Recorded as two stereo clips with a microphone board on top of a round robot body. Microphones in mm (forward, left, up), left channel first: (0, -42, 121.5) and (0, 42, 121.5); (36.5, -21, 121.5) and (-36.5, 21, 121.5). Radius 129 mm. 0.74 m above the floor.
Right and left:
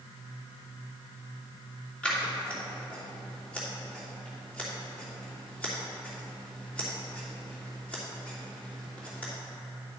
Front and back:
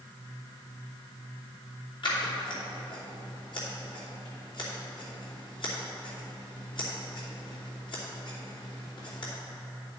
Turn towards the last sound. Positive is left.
turn(degrees=-15)